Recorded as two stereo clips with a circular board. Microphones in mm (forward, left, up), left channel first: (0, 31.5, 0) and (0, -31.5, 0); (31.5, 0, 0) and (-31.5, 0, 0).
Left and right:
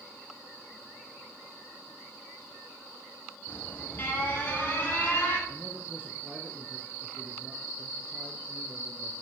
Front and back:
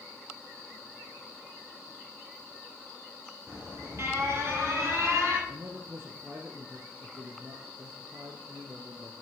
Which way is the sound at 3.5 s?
145° left.